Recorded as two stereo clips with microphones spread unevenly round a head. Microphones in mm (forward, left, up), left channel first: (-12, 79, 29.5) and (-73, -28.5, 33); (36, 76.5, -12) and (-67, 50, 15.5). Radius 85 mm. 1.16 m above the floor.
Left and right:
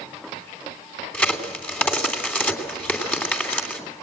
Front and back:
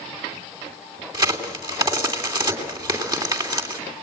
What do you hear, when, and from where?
1.1 s a crack: 140° left, 3 m